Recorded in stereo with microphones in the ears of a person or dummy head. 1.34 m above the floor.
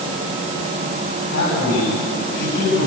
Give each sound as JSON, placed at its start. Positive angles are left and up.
{"t": 1.3, "sound": "a man speaking", "side_deg": 55, "distance_m": 9.5}